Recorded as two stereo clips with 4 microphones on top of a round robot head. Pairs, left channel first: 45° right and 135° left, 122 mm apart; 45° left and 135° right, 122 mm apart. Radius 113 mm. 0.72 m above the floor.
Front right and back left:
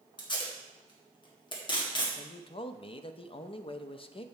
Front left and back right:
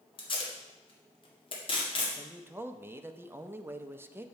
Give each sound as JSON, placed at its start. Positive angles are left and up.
{"t": 0.2, "sound": "tape being pulled", "azimuth_deg": 5, "distance_m": 2.0}
{"t": 2.2, "sound": "a man speaking", "azimuth_deg": -70, "distance_m": 0.6}